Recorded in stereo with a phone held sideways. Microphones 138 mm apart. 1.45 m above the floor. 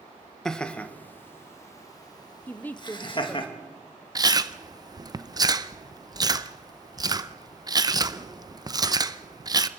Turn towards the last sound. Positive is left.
turn(degrees=-30)  # may be behind; listen again after turning